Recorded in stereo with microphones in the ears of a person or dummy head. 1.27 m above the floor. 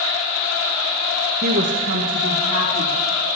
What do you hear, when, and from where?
1.4 s a woman speaking: 45° right (ahead or behind), 0.7 m; by 3.0 s 80° right, 2.5 m